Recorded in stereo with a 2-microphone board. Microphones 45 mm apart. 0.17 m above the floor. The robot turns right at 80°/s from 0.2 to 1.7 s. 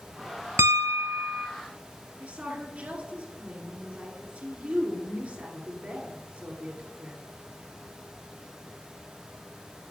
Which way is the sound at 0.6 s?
80° right.